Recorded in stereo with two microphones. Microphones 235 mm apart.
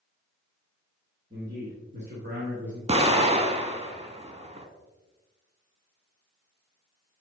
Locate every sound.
1.3 s a man speaking: 45° right (ahead or behind), 2.5 m; by 2.8 s 50° right (ahead or behind), 2.5 m
2.9 s an explosion: 25° right (ahead or behind), 0.7 m